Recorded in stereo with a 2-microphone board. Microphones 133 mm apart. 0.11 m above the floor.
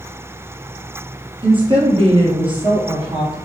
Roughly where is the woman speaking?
Right.